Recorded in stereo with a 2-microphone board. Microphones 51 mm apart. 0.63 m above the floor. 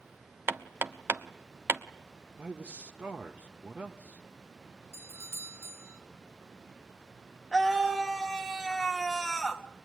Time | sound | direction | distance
0.5 | hammering | 50° right (ahead or behind) | 1.1 m
2.4 | a man speaking | 30° right (ahead or behind) | 1.3 m
4.9 | a doorbell | 55° right (ahead or behind) | 2.5 m
7.5 | a scream | centre (ahead or behind) | 1.1 m